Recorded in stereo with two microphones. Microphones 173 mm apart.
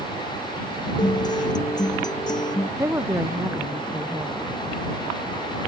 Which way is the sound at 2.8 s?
15° right (ahead or behind).